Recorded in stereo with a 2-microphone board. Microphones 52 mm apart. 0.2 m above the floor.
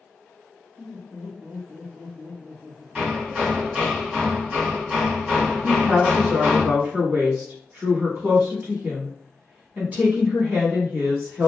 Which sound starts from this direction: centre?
Hammering, at 3.0 s.